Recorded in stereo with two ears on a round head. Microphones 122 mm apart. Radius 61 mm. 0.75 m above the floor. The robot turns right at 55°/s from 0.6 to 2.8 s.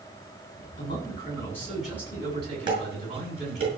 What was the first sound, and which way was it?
A man speaking, 125° left.